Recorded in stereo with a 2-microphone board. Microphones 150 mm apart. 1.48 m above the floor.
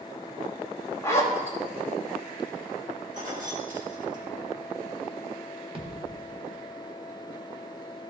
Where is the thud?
35° right (ahead or behind), 1.3 m.